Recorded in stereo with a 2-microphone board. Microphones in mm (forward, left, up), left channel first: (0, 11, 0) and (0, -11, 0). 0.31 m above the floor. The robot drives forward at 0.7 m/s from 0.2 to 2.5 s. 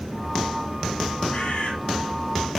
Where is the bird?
75° left (ahead or behind), 8 m.